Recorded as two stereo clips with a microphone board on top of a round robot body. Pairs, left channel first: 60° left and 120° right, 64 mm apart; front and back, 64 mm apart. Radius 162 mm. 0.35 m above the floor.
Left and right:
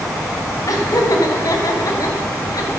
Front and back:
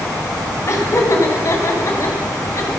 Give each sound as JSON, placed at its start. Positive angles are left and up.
{"t": 0.7, "sound": "laughter", "azimuth_deg": 35, "distance_m": 3.5}